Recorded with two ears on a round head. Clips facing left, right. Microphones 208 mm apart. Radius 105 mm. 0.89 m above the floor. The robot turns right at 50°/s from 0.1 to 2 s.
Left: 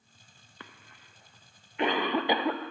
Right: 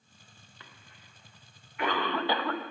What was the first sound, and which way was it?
A cough, 50° left (ahead or behind).